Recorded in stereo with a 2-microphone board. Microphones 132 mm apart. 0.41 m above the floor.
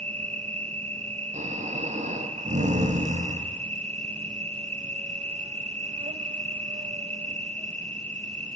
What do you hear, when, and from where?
0.0 s an insect: 60° right (ahead or behind), 1.0 m
1.3 s snoring: 65° right (ahead or behind), 3.5 m